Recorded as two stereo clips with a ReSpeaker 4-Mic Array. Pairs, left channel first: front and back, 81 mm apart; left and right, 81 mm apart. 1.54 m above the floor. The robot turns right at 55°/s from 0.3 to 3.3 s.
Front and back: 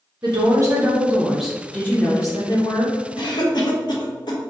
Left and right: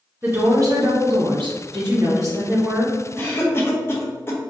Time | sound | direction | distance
0.2 | a woman speaking | 150° right | 1.1 m
3.2 | a cough | 20° left | 0.9 m